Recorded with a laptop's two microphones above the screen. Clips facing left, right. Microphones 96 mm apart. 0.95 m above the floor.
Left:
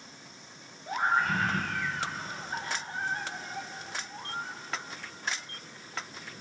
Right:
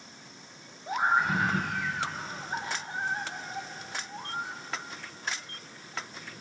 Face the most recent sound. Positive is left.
turn(degrees=-15)  # may be behind; listen again after turning